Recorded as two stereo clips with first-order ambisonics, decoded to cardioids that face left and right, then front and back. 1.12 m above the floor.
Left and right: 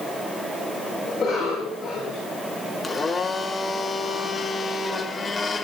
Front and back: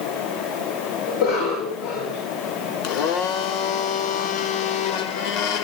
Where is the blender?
10° left, 1.6 m.